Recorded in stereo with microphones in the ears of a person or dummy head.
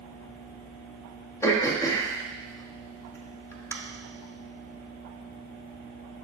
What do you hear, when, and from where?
1.4 s throat clearing: 15° left (ahead or behind), 1.0 m